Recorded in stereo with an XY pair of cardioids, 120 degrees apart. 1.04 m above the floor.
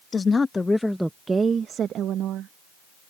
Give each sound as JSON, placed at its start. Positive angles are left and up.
{"t": 0.1, "sound": "a woman speaking", "azimuth_deg": 30}